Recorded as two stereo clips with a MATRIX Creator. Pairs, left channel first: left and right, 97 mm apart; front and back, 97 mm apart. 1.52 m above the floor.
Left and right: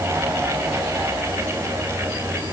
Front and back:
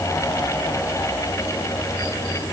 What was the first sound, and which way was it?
Only background noise.